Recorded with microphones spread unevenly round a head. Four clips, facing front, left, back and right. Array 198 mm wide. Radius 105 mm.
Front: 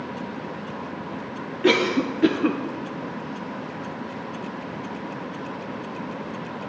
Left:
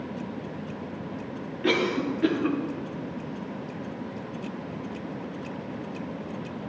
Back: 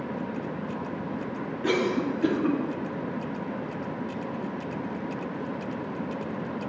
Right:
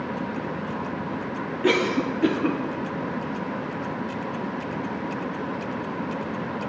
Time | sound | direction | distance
1.6 | a cough | 20° right | 0.7 m